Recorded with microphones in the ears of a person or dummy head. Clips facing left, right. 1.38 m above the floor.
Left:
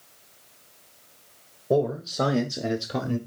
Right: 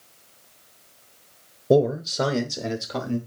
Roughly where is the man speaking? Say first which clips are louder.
Right 4 dB; right.